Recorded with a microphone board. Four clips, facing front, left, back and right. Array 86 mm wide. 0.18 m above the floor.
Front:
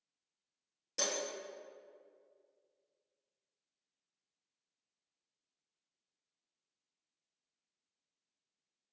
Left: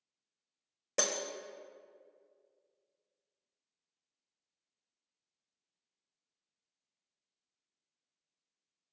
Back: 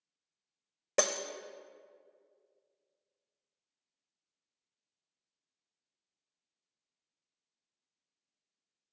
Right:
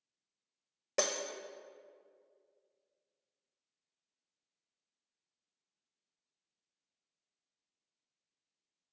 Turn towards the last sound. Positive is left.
turn(degrees=-170)